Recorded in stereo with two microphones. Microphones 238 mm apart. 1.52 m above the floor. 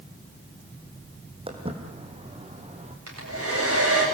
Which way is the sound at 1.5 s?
25° right (ahead or behind).